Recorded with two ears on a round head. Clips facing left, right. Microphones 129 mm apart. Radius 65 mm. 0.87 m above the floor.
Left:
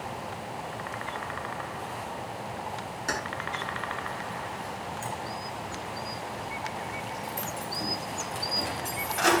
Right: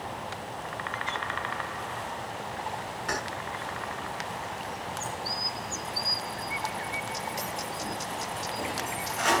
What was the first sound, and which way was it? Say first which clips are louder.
Keys jangling: left 1 dB; 55° left (ahead or behind).